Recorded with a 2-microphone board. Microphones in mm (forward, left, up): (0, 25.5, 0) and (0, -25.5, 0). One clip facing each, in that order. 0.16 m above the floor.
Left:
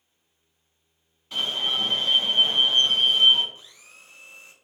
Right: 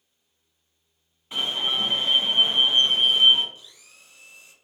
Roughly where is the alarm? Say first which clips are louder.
Even; right.